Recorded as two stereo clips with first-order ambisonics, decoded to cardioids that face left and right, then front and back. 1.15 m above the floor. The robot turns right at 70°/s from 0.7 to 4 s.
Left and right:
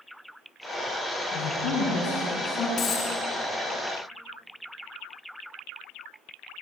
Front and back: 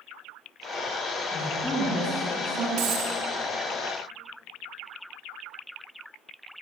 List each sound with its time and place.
1.3 s a man speaking: 60° left, 8.5 m; by 2.7 s 155° left, 8.5 m
2.8 s a dropped coin: 145° left, 7.5 m; by 3.1 s 170° left, 7.5 m